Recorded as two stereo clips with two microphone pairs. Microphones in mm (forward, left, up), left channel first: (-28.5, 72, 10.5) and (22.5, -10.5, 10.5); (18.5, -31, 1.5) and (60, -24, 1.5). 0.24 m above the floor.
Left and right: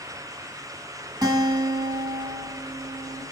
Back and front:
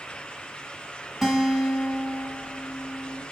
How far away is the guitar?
About 1.9 m.